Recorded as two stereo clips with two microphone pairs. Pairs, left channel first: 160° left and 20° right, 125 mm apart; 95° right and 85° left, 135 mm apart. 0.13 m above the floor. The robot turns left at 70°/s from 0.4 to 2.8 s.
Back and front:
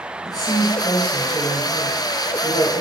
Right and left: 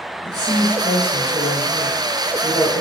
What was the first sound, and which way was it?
A woman speaking, 55° right.